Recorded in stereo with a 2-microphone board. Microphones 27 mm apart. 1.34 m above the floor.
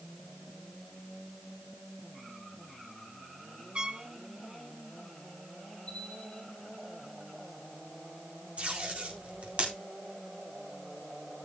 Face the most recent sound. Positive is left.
turn(degrees=-60)  # may be behind; listen again after turning